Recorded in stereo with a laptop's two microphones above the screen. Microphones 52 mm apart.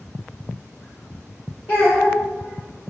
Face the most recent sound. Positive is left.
turn(degrees=35)  # may be behind; listen again after turning